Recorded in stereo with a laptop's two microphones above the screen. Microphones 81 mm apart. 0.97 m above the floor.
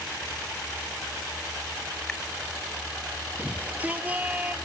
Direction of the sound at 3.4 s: 20° right (ahead or behind).